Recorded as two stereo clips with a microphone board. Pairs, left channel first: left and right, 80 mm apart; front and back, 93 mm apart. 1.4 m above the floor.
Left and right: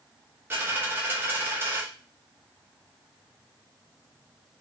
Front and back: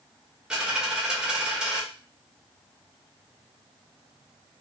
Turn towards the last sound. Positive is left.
turn(degrees=-110)